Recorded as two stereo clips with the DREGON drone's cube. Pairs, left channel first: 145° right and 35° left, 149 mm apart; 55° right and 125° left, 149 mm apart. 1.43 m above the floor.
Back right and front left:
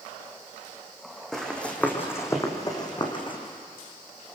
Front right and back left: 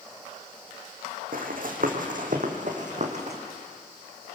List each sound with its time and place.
1.3 s running footsteps: 130° left, 4 m; by 3.4 s 160° left, 4 m